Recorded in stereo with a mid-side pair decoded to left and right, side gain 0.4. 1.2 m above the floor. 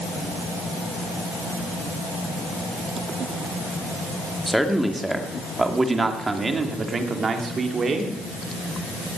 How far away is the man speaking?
About 2.5 m.